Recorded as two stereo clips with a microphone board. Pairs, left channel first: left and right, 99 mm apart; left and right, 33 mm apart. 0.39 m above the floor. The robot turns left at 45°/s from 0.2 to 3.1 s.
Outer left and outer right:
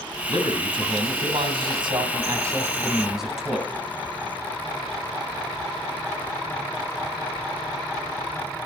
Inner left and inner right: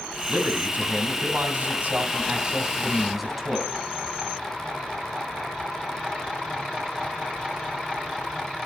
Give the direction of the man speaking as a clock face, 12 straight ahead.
2 o'clock.